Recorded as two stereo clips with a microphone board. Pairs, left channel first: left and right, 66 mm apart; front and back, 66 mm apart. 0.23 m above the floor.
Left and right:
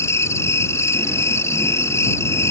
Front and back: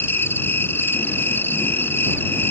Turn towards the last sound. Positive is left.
turn(degrees=50)